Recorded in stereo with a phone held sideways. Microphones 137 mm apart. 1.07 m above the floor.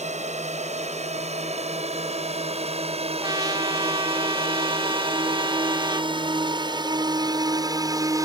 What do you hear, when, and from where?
0.0 s a drone: 55° right (ahead or behind); by 8.3 s 25° right (ahead or behind)
3.2 s a trumpet: 30° right (ahead or behind)